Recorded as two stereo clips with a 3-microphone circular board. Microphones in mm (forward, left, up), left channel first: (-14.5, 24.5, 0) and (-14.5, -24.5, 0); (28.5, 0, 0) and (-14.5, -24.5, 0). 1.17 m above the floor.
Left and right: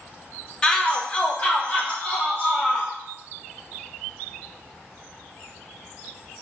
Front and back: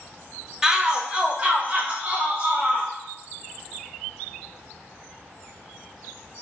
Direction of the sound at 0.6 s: 145° left.